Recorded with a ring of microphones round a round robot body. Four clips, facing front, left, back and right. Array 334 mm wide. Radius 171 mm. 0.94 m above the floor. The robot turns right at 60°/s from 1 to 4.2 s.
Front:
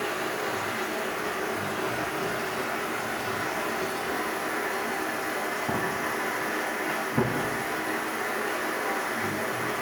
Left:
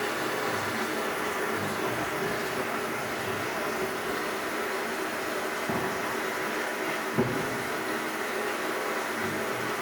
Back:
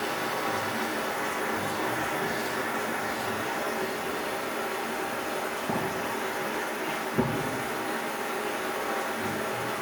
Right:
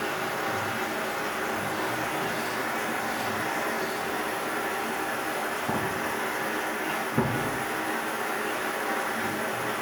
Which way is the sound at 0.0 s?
140° left.